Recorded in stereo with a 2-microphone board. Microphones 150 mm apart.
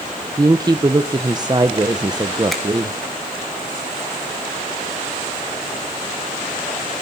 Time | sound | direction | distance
0.4 | a woman speaking | 25° right (ahead or behind) | 0.9 m
2.5 | a finger snap | centre (ahead or behind) | 3 m